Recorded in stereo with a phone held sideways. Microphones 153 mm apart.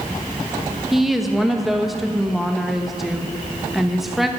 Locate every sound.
0.9 s a woman speaking: centre (ahead or behind), 1.2 m